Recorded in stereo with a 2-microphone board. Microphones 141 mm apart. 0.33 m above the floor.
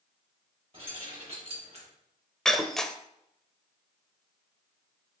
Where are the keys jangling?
40° right (ahead or behind), 5 m; by 1.9 s 50° right (ahead or behind), 5 m.